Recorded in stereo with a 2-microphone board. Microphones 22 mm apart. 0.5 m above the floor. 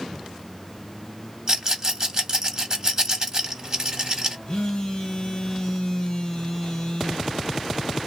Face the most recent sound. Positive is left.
turn(degrees=25)  # may be behind; listen again after turning